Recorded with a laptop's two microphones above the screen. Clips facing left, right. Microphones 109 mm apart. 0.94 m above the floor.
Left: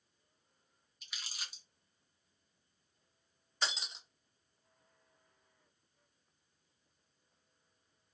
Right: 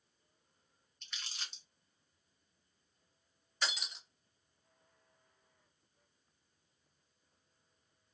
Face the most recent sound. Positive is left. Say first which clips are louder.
# even
turn(degrees=25)  # may be behind; listen again after turning